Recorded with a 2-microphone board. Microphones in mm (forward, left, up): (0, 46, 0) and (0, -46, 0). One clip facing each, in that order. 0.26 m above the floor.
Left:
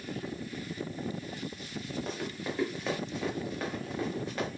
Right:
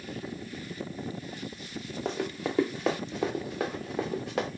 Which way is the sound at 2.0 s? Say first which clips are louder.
Right 4 dB; 80° right.